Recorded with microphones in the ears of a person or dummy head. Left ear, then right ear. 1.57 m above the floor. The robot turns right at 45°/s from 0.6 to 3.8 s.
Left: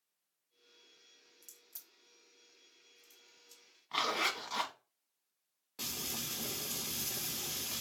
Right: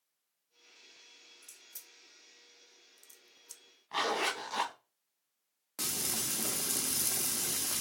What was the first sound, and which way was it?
A crack, 30° left (ahead or behind).